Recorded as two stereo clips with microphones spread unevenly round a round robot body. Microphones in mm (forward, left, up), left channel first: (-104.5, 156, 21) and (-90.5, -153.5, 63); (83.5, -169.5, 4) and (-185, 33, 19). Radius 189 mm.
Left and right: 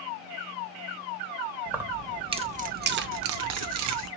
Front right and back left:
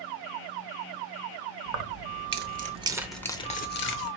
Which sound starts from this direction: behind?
Keys jangling, at 1.7 s.